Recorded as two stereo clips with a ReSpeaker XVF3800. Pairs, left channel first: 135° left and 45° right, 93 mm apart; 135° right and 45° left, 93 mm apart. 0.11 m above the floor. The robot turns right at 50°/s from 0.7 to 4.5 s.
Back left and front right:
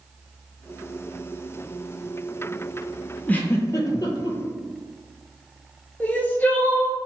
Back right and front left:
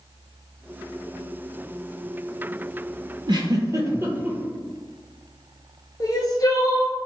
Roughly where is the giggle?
Ahead left.